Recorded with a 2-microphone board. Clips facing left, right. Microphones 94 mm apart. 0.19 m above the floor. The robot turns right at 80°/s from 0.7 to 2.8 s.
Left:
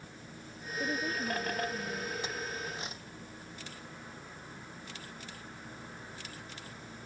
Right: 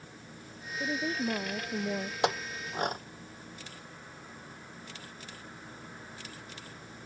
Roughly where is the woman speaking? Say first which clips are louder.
Right 2 dB; behind.